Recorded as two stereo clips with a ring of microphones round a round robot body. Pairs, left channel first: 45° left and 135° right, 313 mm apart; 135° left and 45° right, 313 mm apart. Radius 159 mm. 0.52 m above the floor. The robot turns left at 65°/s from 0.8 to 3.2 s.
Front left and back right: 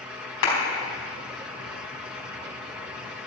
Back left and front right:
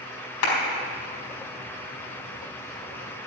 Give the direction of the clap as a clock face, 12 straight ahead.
9 o'clock.